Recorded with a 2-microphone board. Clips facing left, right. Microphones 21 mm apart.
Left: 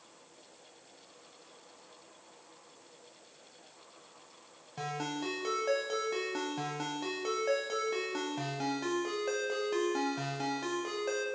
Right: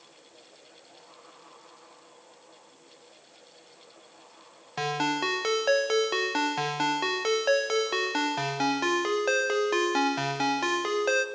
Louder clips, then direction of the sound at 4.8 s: Right 9 dB; 55° right (ahead or behind).